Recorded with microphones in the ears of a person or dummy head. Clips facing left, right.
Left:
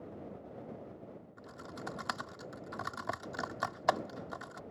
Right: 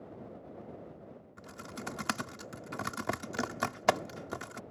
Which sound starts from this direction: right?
Typing on a keyboard, at 1.4 s.